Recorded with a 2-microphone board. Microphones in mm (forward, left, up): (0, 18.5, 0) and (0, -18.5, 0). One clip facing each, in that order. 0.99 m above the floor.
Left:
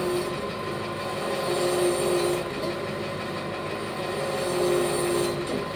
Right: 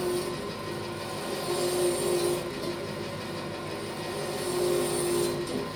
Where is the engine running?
40° left (ahead or behind), 1.6 m.